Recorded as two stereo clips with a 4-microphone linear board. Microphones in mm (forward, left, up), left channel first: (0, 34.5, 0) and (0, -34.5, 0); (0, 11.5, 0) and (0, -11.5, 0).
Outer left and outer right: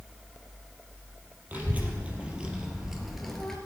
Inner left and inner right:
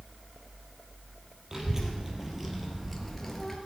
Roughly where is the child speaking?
Right.